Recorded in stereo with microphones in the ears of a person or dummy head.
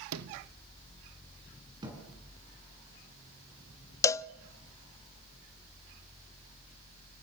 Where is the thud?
25° right (ahead or behind), 7 m.